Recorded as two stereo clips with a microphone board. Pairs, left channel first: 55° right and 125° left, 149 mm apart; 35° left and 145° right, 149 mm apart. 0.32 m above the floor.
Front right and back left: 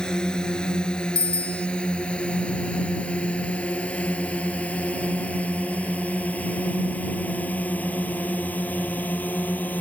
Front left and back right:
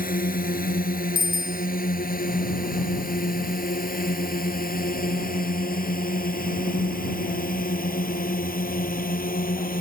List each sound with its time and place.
0.0 s a drone: 30° left; by 9.8 s 25° left
1.1 s a bicycle bell: 35° right